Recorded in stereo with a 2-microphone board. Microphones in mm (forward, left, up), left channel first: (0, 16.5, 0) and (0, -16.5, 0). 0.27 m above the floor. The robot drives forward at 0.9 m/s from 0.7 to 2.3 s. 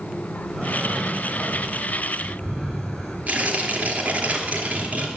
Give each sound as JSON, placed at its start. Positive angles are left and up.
{"t": 0.5, "sound": "breathing", "side_deg": 0, "distance_m": 7.5}
{"t": 3.3, "sound": "tearing paper", "side_deg": -50, "distance_m": 2.5}